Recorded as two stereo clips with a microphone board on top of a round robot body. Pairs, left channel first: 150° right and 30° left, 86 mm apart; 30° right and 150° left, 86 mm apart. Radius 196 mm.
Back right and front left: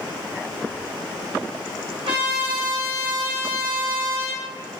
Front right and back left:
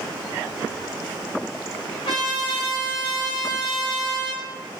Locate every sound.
2.0 s a trumpet: 5° left, 1.1 m